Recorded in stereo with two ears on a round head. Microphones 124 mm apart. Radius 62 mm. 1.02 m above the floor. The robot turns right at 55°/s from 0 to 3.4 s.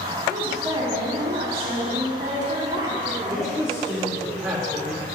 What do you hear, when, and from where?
0.3 s a woman speaking: 170° right, 2 m; by 3.6 s straight ahead, 2 m
3.3 s a man speaking: 10° right (ahead or behind), 2 m; by 5.0 s 5° right (ahead or behind), 2 m